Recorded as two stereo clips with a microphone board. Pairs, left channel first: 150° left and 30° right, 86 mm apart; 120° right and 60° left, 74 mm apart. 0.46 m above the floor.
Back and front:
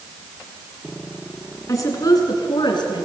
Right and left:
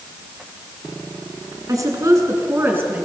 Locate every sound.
1.7 s a woman speaking: 100° left, 4.5 m; by 3.0 s 125° left, 5 m